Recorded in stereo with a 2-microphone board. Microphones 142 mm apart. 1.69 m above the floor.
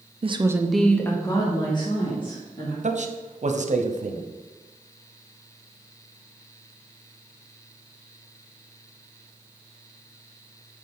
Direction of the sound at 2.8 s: 55° right (ahead or behind).